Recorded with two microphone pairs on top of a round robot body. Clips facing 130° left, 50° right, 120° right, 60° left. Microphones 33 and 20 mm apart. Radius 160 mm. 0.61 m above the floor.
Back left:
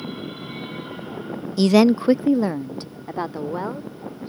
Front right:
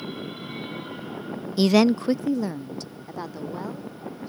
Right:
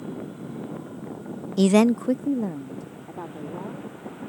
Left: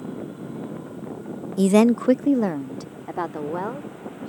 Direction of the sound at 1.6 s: 145° right.